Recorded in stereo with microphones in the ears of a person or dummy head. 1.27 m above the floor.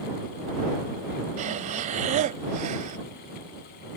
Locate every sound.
1.4 s breathing: 35° right (ahead or behind)